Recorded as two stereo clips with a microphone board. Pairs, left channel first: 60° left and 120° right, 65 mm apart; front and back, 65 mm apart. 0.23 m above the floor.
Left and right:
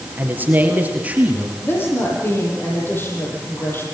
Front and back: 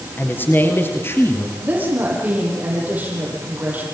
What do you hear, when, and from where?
0.2 s a man speaking: 60° right, 4 m; by 1.5 s 50° right, 4 m
1.6 s a woman speaking: 115° left, 9.5 m